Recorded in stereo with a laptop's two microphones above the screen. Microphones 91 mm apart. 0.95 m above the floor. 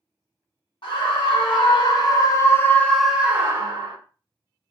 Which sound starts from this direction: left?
A scream, at 0.8 s.